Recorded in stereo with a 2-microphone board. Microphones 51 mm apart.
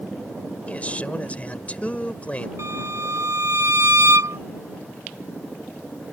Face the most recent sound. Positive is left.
turn(degrees=-75)  # may be behind; listen again after turning